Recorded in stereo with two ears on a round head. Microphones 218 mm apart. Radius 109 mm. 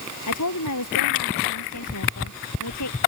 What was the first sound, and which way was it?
A woman speaking, 75° left (ahead or behind).